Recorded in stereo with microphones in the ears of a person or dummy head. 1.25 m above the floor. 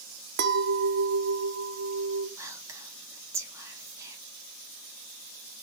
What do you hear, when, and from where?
0.4 s a clink: 65° right (ahead or behind), 0.7 m
2.4 s whispering: 15° right (ahead or behind), 1.5 m